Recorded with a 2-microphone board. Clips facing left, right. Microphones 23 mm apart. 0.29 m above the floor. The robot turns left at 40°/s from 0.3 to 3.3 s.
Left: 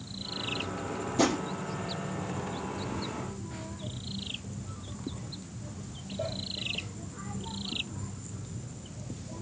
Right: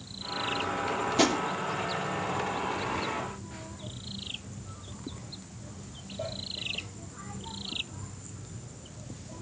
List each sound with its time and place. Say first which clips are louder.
1.2 s a drawer: right 1 dB; 45° right (ahead or behind), 4 m; by 1.4 s 35° right (ahead or behind), 4 m